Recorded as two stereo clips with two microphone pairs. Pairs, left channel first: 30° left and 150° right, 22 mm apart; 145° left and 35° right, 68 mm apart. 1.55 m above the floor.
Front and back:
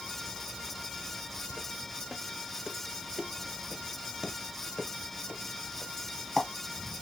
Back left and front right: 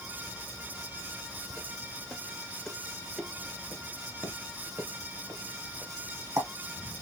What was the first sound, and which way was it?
Footsteps, 165° left.